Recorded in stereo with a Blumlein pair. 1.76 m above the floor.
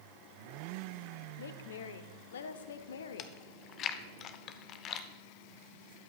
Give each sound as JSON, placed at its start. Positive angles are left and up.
{"t": 1.4, "sound": "a woman speaking", "azimuth_deg": 65, "distance_m": 0.8}
{"t": 3.2, "sound": "chewing", "azimuth_deg": 30, "distance_m": 0.6}